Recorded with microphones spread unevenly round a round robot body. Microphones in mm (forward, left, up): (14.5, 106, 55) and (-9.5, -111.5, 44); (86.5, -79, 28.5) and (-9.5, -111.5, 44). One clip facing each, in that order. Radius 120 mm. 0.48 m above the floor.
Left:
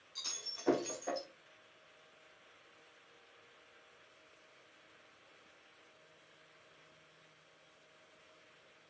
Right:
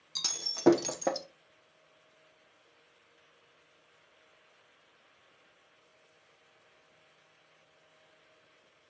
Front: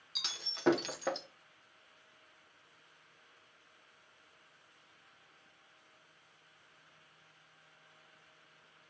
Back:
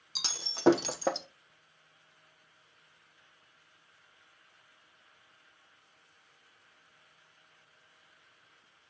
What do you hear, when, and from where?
0.1 s breaking glass: 110° right, 1.1 m